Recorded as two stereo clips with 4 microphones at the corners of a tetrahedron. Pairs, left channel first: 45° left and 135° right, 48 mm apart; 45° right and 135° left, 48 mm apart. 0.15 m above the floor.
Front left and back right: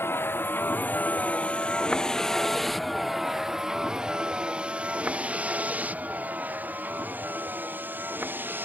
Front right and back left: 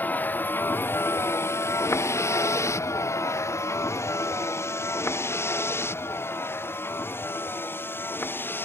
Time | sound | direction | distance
0.0 | a vehicle | 5° left | ?